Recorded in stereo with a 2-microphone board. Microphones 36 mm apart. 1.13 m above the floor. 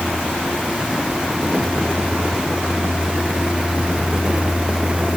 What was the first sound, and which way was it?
Only background noise.